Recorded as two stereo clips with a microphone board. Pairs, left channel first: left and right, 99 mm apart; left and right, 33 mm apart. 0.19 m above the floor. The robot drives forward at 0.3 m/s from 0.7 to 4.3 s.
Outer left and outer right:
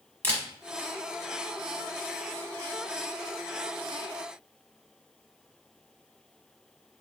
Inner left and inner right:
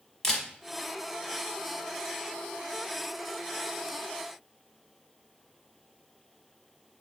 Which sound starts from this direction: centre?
A camera shutter, at 0.2 s.